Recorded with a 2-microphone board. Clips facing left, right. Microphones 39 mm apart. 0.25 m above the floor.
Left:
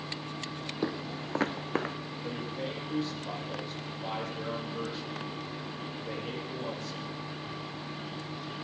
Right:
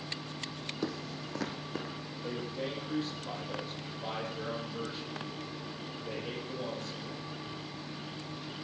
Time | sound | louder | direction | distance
0.8 | footsteps | left 4 dB | 20° left (ahead or behind) | 0.7 m
2.2 | a man speaking | even | 5° left (ahead or behind) | 8 m